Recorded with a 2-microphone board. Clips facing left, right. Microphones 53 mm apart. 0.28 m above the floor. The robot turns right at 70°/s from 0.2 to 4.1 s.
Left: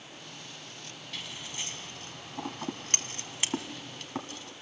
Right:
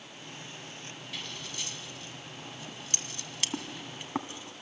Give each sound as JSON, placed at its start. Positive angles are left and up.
{"t": 1.1, "sound": "scissors", "side_deg": -5, "distance_m": 1.3}